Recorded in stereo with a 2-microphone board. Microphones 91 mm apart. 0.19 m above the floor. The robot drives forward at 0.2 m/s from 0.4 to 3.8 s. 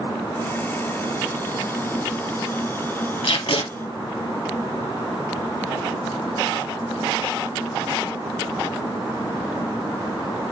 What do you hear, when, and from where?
3.2 s tape being pulled: 75° left (ahead or behind), 2.5 m